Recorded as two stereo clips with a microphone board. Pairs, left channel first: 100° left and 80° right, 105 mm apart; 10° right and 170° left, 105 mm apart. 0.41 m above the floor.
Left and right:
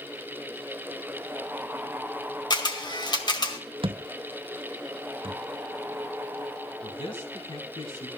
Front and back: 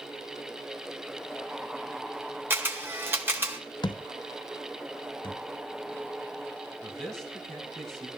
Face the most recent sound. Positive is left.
turn(degrees=75)